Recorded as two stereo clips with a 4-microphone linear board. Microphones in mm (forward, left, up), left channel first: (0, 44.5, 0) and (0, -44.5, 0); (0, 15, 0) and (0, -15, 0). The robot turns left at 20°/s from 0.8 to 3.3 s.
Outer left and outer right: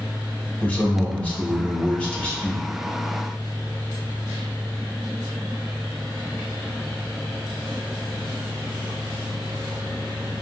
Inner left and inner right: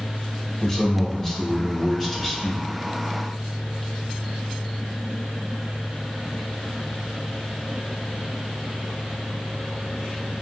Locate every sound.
0.6 s a man speaking: 20° left (ahead or behind), 0.7 m; by 2.6 s 10° left (ahead or behind), 0.7 m